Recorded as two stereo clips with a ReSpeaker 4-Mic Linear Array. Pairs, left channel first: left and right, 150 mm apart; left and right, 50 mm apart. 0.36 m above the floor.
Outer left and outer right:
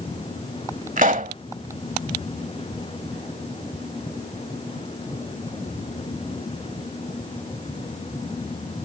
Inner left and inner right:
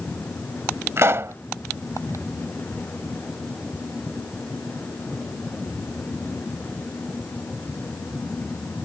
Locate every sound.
1.0 s a pop: 55° right (ahead or behind)